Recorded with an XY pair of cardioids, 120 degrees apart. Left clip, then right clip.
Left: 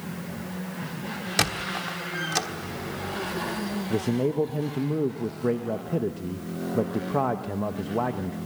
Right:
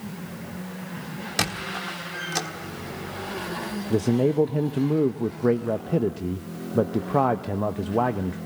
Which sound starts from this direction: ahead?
A squeak, at 1.4 s.